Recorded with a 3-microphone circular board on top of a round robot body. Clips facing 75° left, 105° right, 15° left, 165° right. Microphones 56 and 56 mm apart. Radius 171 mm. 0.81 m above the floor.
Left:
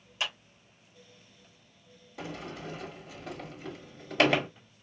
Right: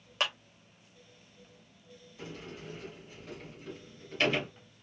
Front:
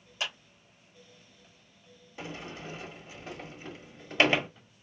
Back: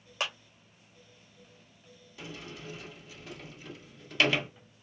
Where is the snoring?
I don't hear snoring.